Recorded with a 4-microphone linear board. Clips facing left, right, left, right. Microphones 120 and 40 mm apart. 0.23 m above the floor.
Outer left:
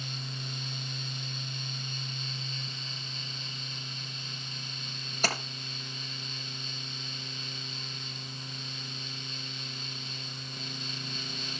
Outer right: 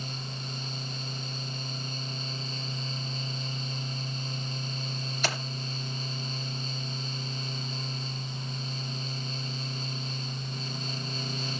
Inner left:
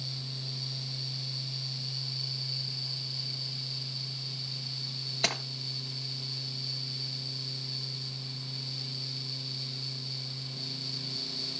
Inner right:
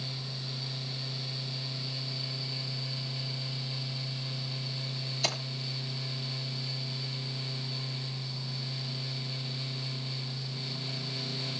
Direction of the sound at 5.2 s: 40° left (ahead or behind).